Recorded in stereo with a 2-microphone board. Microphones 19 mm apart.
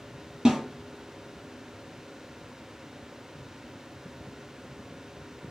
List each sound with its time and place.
0.5 s a snare drum: 45° right (ahead or behind), 1.2 m